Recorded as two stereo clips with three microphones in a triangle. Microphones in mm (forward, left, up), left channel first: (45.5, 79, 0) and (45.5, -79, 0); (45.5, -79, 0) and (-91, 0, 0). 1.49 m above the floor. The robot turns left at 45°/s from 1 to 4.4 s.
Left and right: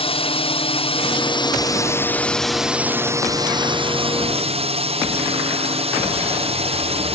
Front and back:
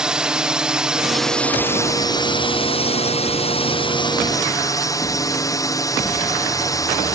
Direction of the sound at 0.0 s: 70° left.